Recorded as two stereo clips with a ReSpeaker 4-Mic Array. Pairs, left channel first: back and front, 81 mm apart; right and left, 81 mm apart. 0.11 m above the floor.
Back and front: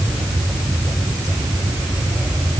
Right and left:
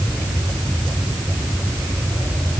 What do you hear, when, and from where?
Only background noise.